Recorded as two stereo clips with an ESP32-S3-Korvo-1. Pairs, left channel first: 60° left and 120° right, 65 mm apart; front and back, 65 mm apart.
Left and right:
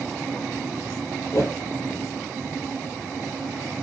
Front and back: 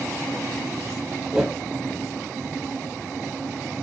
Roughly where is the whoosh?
Left.